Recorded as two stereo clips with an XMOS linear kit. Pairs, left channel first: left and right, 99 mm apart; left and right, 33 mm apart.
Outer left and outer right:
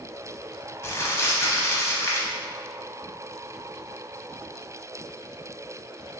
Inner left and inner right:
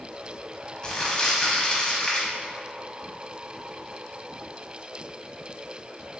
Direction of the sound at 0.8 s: 25° left (ahead or behind).